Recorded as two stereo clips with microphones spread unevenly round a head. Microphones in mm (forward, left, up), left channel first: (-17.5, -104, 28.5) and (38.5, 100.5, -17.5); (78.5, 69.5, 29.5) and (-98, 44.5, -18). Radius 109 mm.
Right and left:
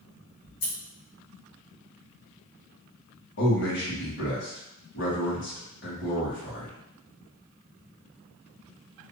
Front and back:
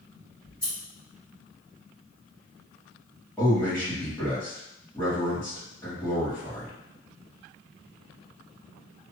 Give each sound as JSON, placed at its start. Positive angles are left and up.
{"t": 0.4, "sound": "scissors", "azimuth_deg": -80, "distance_m": 1.3}
{"t": 3.4, "sound": "a man speaking", "azimuth_deg": -70, "distance_m": 1.7}